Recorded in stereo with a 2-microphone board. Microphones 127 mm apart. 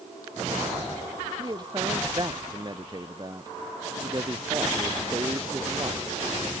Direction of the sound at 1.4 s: 35° right (ahead or behind).